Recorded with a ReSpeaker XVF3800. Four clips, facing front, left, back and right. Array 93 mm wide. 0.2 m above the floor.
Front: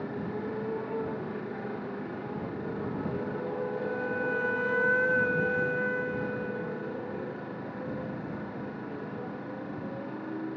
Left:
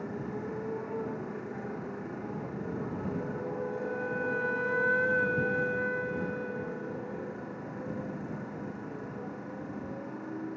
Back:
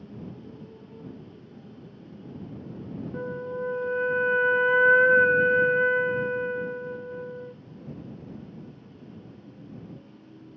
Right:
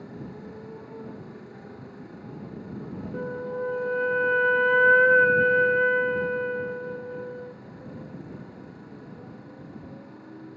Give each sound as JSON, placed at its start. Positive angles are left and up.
{"t": 0.0, "sound": "a motorcycle", "azimuth_deg": 20}
{"t": 3.1, "sound": "a flute", "azimuth_deg": -130}